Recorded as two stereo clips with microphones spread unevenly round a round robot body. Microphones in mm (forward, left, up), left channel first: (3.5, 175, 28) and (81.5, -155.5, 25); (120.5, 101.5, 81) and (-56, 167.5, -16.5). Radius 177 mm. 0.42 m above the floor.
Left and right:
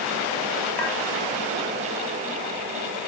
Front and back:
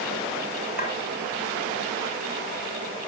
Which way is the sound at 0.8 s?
20° left.